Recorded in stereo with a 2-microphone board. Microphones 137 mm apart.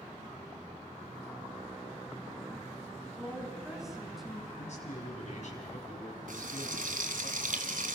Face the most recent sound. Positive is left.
turn(degrees=-80)